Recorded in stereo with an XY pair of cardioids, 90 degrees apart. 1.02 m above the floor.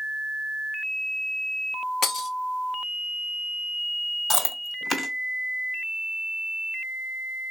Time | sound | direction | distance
2.0 | breaking glass | 65° left | 1.0 m
4.3 | chewing | 35° left | 1.6 m